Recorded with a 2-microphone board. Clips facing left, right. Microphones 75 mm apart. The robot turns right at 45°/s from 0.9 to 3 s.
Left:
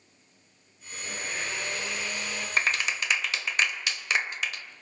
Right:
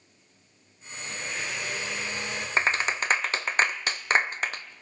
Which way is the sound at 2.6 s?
25° right (ahead or behind).